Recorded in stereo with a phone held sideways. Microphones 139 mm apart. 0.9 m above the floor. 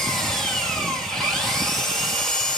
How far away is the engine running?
About 2.5 m.